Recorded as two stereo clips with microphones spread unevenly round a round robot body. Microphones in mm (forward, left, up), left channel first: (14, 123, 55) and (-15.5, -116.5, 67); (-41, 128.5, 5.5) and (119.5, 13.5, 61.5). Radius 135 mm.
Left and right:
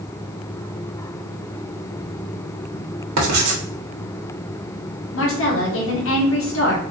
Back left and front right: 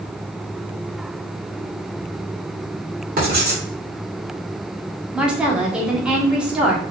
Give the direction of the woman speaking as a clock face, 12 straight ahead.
10 o'clock.